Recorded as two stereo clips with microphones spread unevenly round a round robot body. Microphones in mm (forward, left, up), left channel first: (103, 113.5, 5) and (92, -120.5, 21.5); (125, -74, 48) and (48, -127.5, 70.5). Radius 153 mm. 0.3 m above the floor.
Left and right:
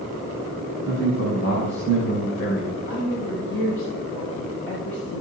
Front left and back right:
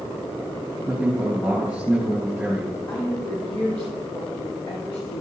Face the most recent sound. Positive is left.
turn(degrees=55)